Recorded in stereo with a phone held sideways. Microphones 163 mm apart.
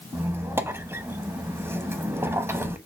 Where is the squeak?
15° right (ahead or behind), 0.7 m.